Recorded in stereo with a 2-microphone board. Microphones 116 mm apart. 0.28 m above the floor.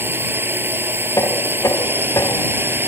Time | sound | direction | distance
0.0 | a drone | 20° right (ahead or behind) | ?
1.2 | knocking | 30° left (ahead or behind) | ?